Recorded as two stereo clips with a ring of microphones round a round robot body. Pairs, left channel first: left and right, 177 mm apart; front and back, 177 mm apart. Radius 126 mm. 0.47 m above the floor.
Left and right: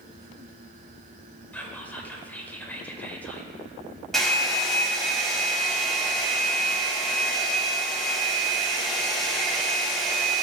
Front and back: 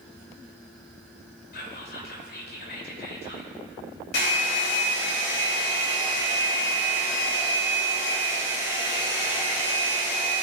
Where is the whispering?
10° left, 2 m.